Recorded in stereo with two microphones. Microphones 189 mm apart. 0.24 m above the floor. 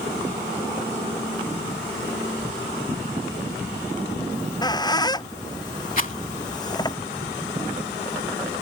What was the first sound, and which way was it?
A squeak, 20° left (ahead or behind).